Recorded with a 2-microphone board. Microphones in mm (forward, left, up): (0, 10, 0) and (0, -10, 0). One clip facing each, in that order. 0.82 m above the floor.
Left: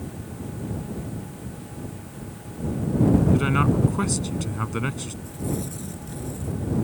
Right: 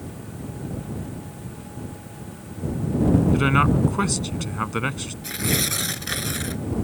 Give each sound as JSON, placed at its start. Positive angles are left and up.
{"t": 3.3, "sound": "a man speaking", "side_deg": -15}
{"t": 5.2, "sound": "tearing paper", "side_deg": -85}